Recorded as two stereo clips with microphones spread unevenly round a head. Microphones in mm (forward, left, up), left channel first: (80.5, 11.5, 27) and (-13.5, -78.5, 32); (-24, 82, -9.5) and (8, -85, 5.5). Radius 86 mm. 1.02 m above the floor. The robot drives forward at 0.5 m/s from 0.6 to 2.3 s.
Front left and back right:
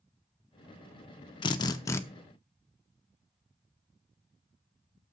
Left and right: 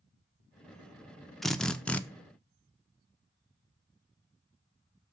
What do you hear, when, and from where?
1.4 s a drill: 5° left, 0.6 m; by 2.0 s 20° left, 0.5 m